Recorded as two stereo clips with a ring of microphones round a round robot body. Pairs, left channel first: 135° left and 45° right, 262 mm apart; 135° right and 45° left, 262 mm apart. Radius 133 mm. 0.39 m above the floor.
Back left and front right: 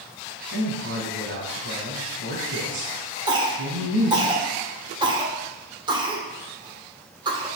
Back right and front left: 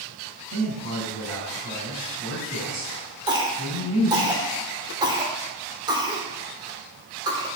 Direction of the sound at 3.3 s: 5° right.